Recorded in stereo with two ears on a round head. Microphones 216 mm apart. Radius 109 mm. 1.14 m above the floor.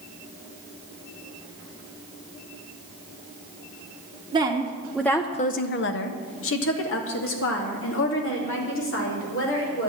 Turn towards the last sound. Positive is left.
turn(degrees=50)  # may be behind; listen again after turning